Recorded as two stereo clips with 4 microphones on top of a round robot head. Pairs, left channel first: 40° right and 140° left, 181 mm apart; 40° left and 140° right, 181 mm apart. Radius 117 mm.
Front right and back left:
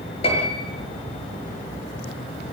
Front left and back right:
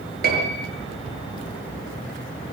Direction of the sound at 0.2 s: 100° right.